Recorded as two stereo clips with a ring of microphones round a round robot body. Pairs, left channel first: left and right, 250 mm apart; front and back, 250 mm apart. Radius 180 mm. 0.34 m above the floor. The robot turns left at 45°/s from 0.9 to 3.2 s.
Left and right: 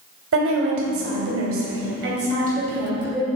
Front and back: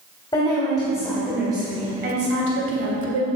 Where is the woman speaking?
75° right, 2.5 m; by 3.3 s straight behind, 2.5 m.